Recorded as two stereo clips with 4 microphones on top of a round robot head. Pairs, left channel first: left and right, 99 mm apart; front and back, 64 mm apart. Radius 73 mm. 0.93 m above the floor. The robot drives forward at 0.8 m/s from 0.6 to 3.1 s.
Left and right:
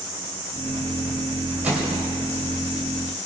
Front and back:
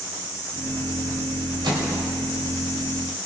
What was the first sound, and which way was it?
A microwave, 170° right.